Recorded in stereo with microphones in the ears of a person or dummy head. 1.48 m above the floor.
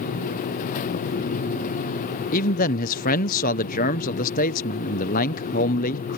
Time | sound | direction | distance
2.3 | a man speaking | 45° left (ahead or behind) | ?